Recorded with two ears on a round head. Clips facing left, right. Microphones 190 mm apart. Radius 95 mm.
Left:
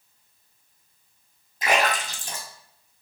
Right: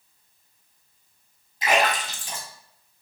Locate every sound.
1.6 s a splash: 40° left (ahead or behind), 0.8 m